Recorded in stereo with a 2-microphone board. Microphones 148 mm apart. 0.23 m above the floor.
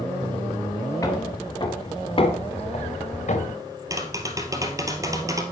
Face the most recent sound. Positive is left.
turn(degrees=-20)  # may be behind; listen again after turning